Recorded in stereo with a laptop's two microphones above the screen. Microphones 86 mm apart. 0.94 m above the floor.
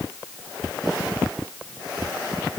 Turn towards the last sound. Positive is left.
No sound to turn to.